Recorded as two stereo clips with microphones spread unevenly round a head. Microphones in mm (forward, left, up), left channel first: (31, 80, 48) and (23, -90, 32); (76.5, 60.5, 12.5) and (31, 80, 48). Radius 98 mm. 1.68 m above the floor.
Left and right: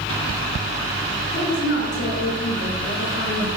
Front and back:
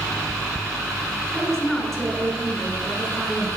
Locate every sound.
1.3 s a woman speaking: 75° left, 5 m